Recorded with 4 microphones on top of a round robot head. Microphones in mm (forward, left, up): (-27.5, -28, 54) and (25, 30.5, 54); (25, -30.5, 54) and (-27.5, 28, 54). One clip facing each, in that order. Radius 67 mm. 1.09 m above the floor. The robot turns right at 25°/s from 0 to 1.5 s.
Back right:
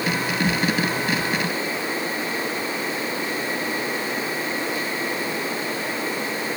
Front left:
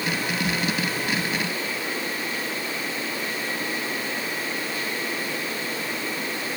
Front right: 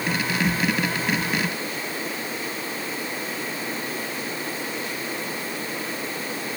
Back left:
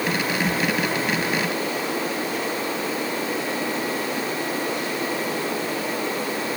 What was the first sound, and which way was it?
Only background noise.